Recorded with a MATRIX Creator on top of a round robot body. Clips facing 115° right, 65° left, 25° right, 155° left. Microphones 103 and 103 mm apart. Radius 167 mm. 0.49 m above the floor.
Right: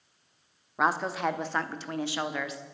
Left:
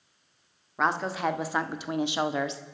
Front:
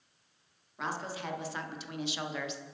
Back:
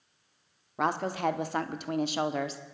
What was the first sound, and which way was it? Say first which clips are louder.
A woman speaking: even, back 9 dB; 165° left.